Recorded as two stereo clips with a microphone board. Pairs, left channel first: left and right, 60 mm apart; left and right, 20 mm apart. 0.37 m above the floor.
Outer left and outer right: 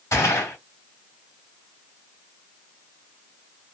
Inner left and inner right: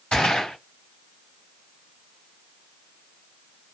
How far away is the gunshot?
About 2.5 m.